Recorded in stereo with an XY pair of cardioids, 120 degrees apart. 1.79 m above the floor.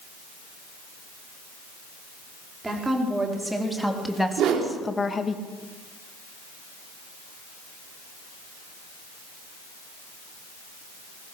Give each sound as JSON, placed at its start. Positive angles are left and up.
{"t": 2.6, "sound": "a woman speaking", "azimuth_deg": -15, "distance_m": 5.0}
{"t": 4.4, "sound": "a whoosh", "azimuth_deg": -70, "distance_m": 4.0}